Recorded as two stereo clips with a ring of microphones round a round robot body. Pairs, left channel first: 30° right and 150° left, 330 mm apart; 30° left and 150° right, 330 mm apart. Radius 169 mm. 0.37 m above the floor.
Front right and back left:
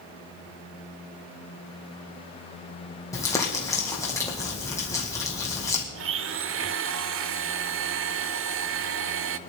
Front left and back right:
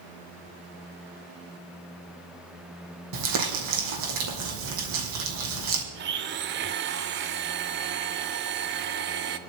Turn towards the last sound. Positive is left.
turn(degrees=170)